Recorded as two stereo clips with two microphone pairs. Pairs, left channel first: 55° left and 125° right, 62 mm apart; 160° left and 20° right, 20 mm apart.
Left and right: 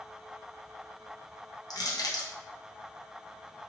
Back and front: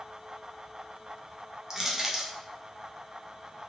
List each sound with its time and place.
1.7 s crushing: 50° left, 0.7 m